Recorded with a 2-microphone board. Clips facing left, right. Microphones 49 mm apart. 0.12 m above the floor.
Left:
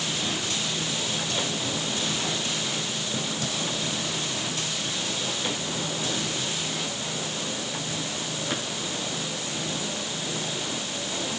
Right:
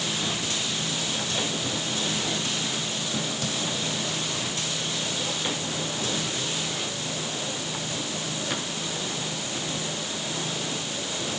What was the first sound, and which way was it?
Only background noise.